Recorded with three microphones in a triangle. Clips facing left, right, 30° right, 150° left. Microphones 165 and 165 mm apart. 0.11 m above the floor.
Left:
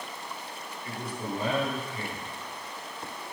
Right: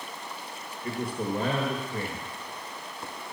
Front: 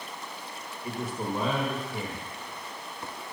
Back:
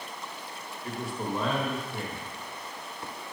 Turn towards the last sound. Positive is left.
turn(degrees=-115)